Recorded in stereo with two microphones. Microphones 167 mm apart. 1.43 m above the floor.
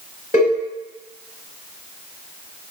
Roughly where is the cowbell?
Left.